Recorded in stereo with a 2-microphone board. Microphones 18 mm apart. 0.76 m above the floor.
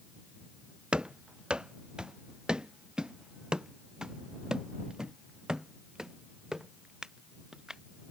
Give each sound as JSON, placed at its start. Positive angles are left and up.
{"t": 0.9, "sound": "running footsteps", "side_deg": -55}